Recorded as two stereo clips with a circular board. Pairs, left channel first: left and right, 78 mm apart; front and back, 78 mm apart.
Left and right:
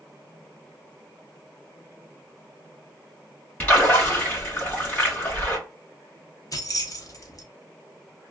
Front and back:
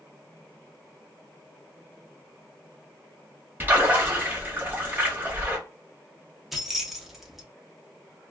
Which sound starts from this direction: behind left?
A splash, at 3.6 s.